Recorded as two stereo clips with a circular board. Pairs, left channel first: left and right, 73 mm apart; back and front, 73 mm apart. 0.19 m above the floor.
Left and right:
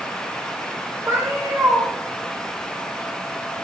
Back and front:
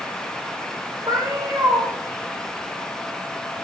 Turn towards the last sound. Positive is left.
turn(degrees=-30)